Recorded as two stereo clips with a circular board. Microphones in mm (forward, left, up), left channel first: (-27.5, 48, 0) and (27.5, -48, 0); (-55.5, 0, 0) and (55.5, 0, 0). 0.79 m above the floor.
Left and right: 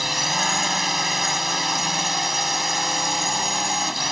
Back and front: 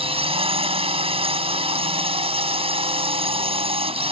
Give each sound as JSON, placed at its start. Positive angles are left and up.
{"t": 0.0, "sound": "a drone", "azimuth_deg": 30}